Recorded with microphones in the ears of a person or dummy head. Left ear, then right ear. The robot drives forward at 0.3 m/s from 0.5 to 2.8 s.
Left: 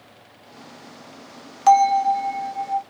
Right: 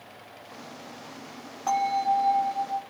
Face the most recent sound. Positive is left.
turn(degrees=75)  # may be behind; listen again after turning